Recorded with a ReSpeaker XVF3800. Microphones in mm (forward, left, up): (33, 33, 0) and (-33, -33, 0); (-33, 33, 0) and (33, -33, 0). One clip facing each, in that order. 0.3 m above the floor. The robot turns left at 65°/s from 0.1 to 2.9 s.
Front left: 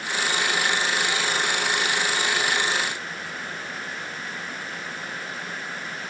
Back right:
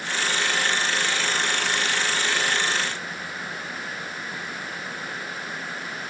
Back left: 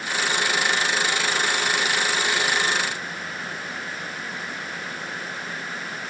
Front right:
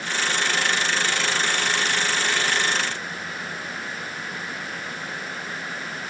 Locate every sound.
Only background noise.